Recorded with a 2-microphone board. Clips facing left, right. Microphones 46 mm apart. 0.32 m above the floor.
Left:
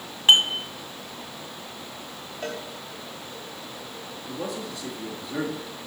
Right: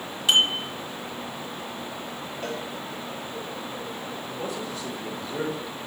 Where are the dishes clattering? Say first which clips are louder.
Left 3 dB; 40° left (ahead or behind), 1.5 m.